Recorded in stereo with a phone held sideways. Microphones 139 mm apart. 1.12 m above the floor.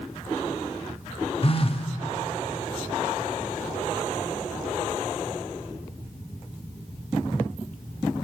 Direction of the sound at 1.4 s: 45° left (ahead or behind).